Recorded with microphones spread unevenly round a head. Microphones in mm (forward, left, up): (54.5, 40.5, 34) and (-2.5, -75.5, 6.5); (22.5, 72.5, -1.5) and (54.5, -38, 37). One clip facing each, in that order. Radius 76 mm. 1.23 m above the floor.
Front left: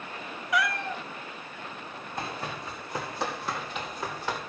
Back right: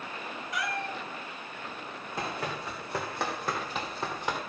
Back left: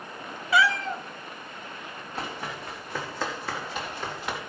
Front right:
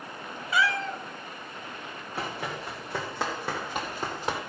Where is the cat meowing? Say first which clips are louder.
Front left 6 dB, back left 4 dB; 85° left, 0.8 m.